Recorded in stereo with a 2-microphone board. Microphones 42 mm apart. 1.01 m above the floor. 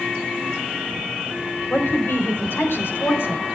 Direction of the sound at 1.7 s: 70° left (ahead or behind).